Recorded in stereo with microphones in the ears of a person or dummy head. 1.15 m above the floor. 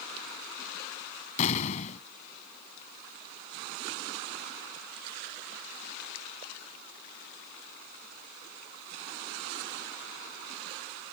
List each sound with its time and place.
1.4 s an explosion: 45° left (ahead or behind)